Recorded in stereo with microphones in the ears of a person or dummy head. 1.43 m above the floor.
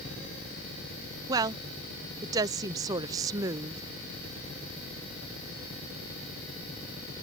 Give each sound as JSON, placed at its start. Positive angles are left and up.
{"t": 1.3, "sound": "a woman speaking", "side_deg": -20}